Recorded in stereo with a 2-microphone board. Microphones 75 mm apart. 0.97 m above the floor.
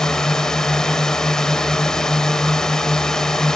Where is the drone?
10° left (ahead or behind).